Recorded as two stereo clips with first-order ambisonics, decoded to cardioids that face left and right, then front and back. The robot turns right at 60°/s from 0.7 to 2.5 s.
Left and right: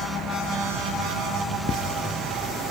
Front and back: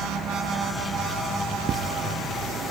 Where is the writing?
130° left; by 1.9 s 145° left.